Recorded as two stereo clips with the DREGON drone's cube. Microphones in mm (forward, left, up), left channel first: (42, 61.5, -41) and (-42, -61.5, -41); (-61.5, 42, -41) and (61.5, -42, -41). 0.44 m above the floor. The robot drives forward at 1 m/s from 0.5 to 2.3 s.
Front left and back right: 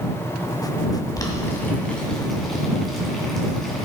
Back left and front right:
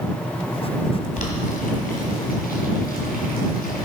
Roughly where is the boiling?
Behind left.